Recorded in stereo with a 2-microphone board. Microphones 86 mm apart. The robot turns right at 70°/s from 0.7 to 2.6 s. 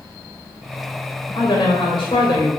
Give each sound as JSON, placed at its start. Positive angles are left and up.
{"t": 1.4, "sound": "a woman speaking", "azimuth_deg": 60, "distance_m": 1.9}